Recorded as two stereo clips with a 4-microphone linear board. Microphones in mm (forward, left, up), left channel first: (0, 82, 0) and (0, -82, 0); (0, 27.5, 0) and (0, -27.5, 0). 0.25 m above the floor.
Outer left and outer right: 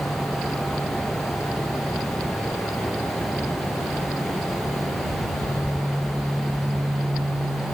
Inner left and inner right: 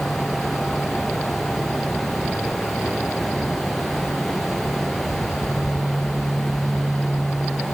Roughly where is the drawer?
No drawer in this recording.